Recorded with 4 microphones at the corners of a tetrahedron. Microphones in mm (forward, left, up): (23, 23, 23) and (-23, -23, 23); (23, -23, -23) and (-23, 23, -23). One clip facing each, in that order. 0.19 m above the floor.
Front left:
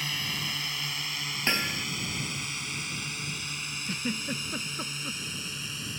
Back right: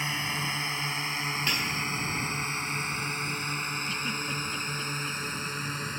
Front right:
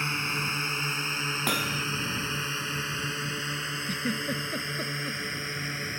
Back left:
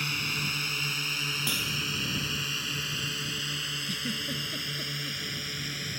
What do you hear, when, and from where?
0.0 s a drone: 85° right; by 6.0 s 100° right
1.5 s hammering: 10° right
3.9 s a giggle: straight ahead